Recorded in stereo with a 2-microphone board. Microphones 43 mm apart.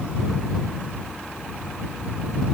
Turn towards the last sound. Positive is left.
No sound to turn to.